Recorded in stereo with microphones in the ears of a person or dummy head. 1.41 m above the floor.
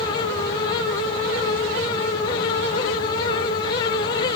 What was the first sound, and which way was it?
Only background noise.